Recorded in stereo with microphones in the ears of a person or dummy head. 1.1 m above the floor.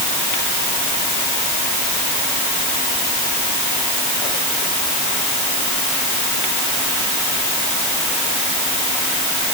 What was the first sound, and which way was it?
Only background noise.